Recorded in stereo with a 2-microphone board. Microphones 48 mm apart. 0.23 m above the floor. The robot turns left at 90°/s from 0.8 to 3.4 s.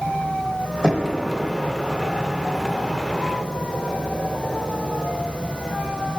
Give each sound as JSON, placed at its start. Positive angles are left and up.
{"t": 0.8, "sound": "knocking", "side_deg": -20, "distance_m": 1.1}